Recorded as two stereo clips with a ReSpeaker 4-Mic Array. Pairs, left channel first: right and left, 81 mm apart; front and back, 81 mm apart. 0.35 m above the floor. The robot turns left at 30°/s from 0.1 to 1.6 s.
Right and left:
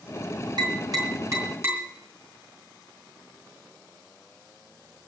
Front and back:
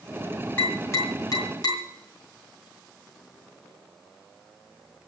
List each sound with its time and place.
0.6 s tapping: 65° left, 5 m; by 1.8 s 35° left, 5 m